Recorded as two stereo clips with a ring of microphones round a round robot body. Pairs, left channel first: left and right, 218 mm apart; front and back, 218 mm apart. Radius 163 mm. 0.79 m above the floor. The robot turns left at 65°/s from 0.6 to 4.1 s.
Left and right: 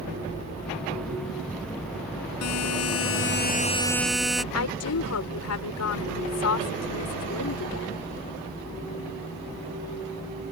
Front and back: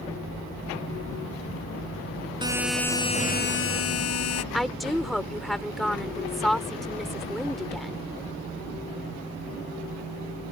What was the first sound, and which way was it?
A buzzer, 110° left.